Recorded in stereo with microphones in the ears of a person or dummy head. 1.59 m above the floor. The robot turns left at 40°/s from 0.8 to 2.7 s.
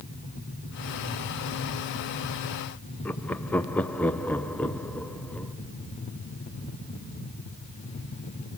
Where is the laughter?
10° left (ahead or behind), 0.7 m.